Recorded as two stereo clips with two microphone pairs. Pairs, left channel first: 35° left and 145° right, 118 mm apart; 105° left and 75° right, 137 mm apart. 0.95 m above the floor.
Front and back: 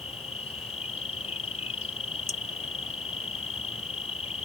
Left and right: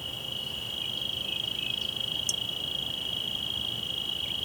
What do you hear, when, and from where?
0.0 s an insect: 15° left
2.3 s dishes clattering: 40° left